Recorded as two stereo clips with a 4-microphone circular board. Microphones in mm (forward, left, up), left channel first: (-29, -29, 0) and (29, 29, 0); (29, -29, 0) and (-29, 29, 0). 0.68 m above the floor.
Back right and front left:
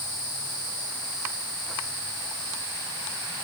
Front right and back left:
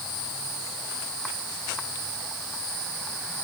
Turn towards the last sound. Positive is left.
No sound to turn to.